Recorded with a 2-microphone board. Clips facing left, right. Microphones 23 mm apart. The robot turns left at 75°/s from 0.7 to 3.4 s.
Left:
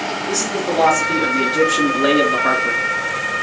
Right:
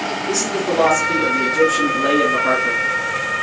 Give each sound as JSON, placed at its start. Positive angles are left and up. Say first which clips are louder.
{"t": 0.3, "sound": "a man speaking", "louder": "right 1 dB", "azimuth_deg": 170, "distance_m": 2.5}